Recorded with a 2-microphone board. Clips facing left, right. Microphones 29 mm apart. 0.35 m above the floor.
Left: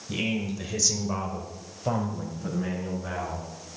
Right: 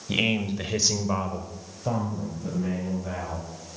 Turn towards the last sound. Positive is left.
turn(degrees=30)  # may be behind; listen again after turning